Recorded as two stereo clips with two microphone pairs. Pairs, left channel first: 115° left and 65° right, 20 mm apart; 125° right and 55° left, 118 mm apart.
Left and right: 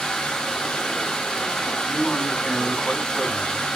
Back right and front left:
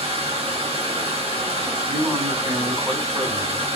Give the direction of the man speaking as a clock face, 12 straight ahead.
8 o'clock.